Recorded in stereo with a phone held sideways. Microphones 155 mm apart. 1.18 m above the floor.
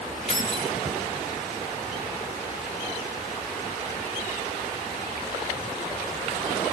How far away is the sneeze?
No sneeze in this recording.